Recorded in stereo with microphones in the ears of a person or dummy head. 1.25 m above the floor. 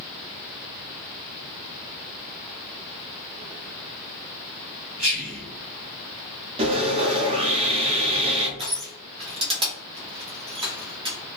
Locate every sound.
5.0 s whispering: 45° right (ahead or behind), 1.6 m
6.6 s sawing: 30° right (ahead or behind), 0.9 m
8.6 s crushing: 30° right (ahead or behind), 0.9 m